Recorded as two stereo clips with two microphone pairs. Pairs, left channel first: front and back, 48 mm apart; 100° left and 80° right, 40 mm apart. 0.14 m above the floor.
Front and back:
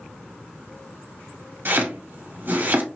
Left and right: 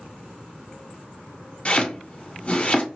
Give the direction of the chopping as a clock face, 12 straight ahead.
7 o'clock.